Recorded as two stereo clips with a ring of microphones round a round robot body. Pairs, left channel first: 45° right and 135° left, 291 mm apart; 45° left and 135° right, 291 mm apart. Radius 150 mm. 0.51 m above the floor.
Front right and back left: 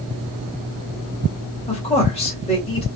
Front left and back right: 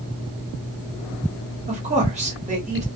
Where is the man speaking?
95° right, 1.2 m.